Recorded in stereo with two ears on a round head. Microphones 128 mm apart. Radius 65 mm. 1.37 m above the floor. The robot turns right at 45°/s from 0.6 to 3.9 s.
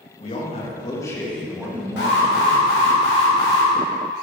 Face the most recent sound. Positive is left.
turn(degrees=170)